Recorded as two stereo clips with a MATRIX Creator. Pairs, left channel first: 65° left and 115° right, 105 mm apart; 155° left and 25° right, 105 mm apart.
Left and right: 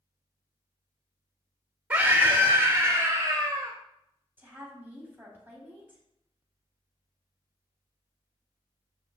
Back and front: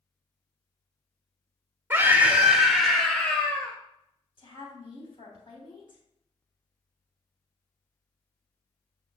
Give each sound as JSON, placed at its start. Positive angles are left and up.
{"t": 1.9, "sound": "a scream", "azimuth_deg": -55, "distance_m": 1.4}
{"t": 4.4, "sound": "a woman speaking", "azimuth_deg": 180, "distance_m": 3.0}